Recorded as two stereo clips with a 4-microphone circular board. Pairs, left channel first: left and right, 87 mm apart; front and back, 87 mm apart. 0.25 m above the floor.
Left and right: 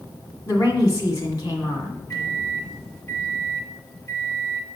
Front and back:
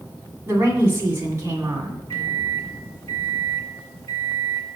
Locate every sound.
0.5 s a woman speaking: 125° left, 2 m
2.1 s a microwave: 50° left, 1.7 m